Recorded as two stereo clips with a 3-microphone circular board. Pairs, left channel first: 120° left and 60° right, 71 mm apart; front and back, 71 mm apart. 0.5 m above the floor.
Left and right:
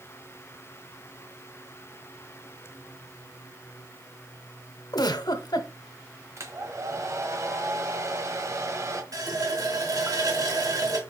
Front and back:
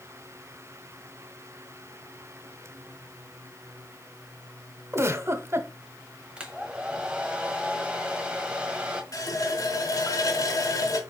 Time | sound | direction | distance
4.9 | a giggle | 130° left | 0.9 m
6.4 | a hair dryer | 105° right | 1.3 m
9.1 | a running tap | 35° right | 2 m